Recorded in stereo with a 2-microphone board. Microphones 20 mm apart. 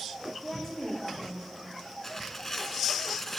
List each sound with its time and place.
0.4 s a woman speaking: 20° left (ahead or behind), 9 m
2.0 s tearing paper: 20° left (ahead or behind), 1.6 m